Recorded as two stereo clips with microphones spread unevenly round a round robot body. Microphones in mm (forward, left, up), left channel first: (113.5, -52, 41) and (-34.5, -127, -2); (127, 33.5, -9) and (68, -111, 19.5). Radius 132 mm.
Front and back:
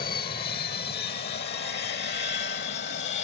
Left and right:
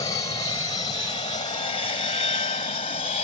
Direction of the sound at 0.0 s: 25° left.